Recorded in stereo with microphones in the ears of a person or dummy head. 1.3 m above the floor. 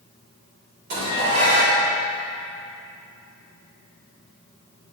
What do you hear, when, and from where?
0.9 s dishes clattering: 65° right (ahead or behind), 2.5 m